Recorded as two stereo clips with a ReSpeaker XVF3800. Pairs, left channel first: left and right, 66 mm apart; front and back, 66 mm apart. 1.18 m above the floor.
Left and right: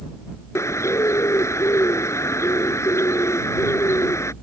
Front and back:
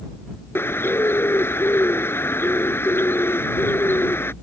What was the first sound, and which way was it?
A bird, 50° left.